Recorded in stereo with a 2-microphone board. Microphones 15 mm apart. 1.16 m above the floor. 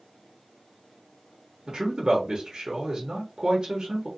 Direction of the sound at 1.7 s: 60° right (ahead or behind).